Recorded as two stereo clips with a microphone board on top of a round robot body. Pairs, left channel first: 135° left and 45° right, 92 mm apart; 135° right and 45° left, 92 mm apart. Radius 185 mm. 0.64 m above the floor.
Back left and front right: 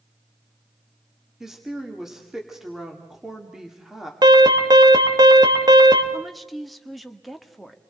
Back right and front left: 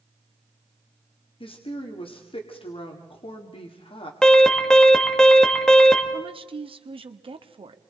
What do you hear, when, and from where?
1.4 s a woman speaking: 130° right, 2 m
4.2 s an alarm: 55° right, 2.5 m
6.1 s a woman speaking: 45° left, 1.5 m